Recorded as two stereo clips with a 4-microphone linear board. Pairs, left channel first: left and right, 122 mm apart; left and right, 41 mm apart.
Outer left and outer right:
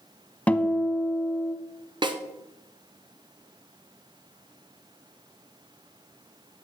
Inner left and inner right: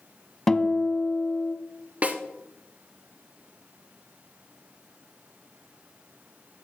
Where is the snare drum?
40° right (ahead or behind), 0.9 m.